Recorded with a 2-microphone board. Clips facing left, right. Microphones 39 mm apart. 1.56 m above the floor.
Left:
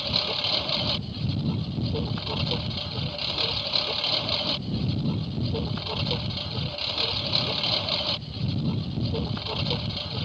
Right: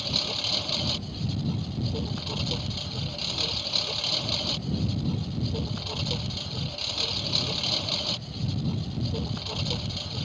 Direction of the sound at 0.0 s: 20° left (ahead or behind).